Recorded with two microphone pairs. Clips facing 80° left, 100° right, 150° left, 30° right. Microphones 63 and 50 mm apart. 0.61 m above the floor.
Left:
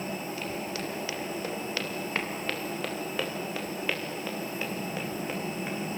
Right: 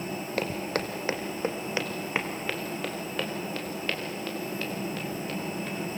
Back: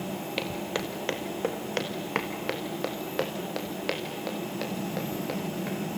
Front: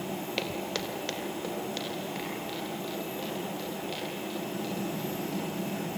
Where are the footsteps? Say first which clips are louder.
Right 4 dB, back 3 dB; 125° right, 2 m; by 5.8 s 150° left, 6 m.